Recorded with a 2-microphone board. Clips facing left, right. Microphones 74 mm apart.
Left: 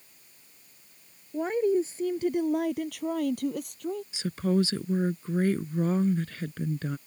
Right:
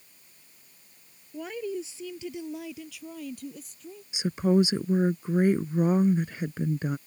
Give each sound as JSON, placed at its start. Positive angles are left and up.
{"t": 1.3, "sound": "a woman speaking", "side_deg": 35}
{"t": 4.1, "sound": "a woman speaking", "side_deg": -15}